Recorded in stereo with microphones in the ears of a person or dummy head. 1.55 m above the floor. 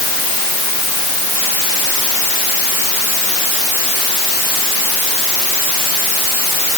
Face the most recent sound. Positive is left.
No sound to turn to.